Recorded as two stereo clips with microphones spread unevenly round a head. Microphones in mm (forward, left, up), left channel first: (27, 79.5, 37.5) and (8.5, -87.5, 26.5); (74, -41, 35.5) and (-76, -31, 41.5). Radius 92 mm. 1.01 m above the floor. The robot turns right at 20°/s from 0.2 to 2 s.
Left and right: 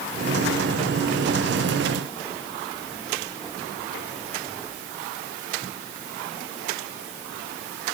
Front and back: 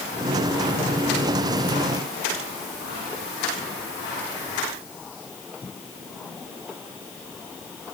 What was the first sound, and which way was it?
Only background noise.